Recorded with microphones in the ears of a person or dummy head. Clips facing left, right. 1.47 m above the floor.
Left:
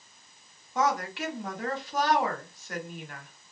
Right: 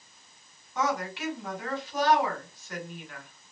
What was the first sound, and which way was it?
A woman speaking, 45° left (ahead or behind).